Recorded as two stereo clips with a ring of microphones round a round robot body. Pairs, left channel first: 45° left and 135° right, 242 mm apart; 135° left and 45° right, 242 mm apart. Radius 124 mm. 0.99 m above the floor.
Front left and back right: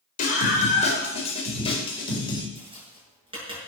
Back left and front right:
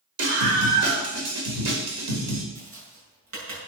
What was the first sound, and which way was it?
A scream, 15° right.